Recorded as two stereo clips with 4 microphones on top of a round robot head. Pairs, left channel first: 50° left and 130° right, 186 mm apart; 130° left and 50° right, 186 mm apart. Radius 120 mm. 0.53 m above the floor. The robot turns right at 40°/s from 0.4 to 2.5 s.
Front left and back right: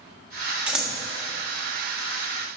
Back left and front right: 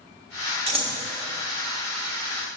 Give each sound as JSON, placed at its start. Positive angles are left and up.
{"t": 0.7, "sound": "scissors", "azimuth_deg": -55, "distance_m": 1.4}